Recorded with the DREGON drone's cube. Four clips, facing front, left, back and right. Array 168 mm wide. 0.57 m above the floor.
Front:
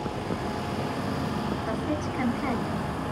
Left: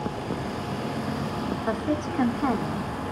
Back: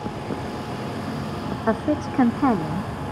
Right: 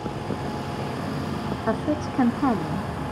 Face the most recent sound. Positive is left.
turn(degrees=-165)